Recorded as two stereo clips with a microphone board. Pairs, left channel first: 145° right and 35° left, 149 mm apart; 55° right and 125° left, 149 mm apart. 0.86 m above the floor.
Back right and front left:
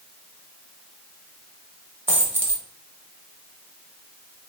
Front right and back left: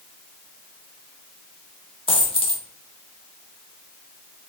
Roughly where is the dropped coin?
Ahead right.